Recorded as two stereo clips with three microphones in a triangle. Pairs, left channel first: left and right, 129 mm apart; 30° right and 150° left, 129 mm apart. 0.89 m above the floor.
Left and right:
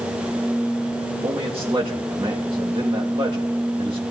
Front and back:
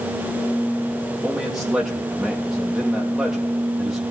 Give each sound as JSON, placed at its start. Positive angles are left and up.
{"t": 1.2, "sound": "a man speaking", "azimuth_deg": -125, "distance_m": 1.4}